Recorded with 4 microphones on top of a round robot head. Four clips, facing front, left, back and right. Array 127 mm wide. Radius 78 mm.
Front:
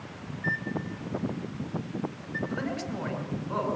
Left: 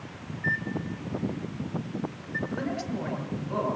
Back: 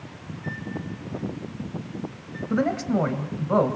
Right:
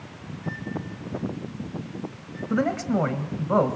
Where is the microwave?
50° left, 2 m.